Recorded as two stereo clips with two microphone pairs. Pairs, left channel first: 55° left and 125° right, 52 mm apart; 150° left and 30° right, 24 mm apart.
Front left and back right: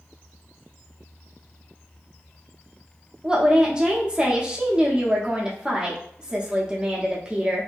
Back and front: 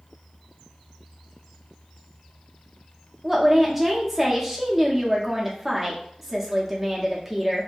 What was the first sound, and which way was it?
A woman speaking, 105° right.